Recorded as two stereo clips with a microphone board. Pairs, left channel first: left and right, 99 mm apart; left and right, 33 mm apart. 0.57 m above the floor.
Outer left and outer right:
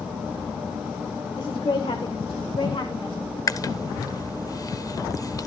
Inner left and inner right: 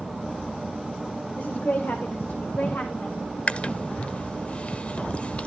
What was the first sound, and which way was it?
A woman speaking, 50° left (ahead or behind).